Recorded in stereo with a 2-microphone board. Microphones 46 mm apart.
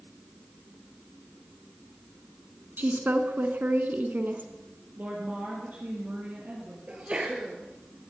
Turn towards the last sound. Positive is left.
turn(degrees=-25)  # may be behind; listen again after turning